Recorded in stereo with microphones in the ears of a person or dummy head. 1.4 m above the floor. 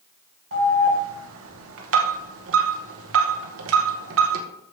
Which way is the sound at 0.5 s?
75° right (ahead or behind).